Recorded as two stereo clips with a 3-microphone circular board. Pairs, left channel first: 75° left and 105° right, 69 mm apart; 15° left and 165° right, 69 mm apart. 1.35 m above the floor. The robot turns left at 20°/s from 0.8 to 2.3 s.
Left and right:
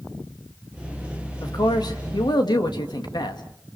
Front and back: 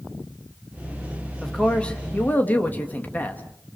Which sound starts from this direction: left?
A man speaking, at 1.4 s.